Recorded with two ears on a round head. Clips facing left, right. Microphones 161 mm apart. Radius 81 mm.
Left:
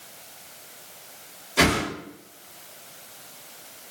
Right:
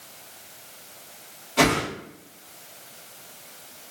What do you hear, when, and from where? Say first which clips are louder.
1.6 s a whoosh: right 1 dB; 10° left (ahead or behind), 1.8 m